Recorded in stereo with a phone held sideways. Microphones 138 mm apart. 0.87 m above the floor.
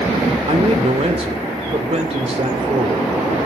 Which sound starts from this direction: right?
A man speaking, at 0.5 s.